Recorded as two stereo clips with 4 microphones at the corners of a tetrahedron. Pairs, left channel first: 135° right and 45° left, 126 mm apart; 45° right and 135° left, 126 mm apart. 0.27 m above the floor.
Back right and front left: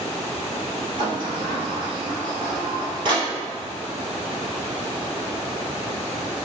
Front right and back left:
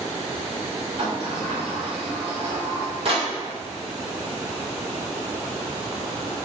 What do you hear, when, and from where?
1.0 s a sliding door: 95° left, 1.5 m